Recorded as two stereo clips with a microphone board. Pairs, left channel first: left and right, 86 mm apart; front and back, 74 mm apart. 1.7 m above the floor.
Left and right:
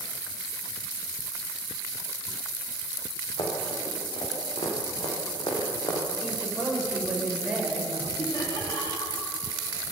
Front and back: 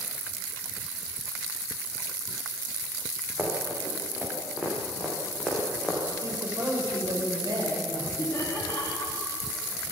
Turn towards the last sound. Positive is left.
turn(degrees=55)